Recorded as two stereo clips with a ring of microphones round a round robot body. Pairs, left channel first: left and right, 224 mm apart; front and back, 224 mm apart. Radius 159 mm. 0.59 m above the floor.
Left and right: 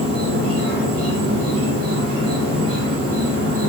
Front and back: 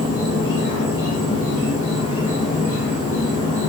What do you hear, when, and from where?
0.0 s an insect: 105° right, 0.8 m